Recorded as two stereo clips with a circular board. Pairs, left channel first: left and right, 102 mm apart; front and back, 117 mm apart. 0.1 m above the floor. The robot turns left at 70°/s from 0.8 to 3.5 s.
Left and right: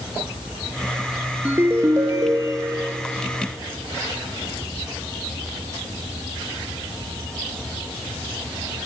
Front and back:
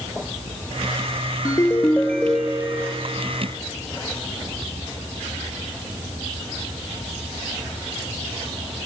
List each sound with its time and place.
1.4 s a ringtone: 30° right, 1.1 m; by 2.9 s 130° right, 1.1 m